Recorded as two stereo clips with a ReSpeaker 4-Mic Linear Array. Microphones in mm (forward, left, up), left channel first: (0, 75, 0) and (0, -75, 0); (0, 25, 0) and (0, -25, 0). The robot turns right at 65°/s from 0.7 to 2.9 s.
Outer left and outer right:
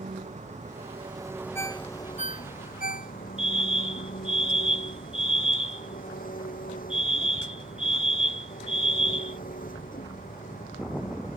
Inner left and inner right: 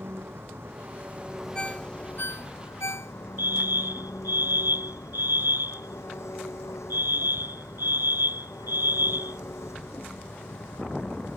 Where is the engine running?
60° right; by 11.4 s 85° left.